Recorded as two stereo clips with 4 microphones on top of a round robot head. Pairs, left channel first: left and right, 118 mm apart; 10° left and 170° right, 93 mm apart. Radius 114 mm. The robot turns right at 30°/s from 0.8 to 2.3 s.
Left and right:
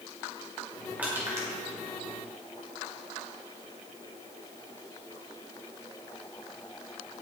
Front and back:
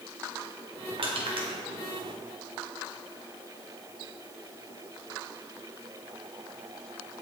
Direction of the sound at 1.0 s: 170° right.